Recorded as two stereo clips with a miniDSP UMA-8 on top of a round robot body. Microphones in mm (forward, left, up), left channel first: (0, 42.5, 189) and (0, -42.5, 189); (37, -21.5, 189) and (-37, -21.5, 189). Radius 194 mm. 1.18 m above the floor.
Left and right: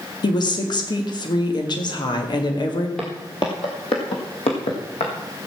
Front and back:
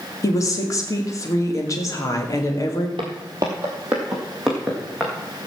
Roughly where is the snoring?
I don't hear snoring.